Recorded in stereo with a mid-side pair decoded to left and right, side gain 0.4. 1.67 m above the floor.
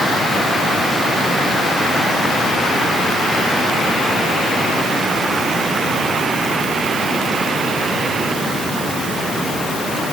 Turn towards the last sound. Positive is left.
No sound to turn to.